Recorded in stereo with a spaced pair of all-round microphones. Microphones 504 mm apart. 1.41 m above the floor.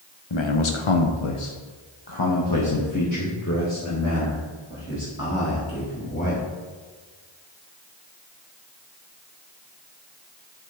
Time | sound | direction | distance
0.3 | a man speaking | 55° left (ahead or behind) | 0.9 m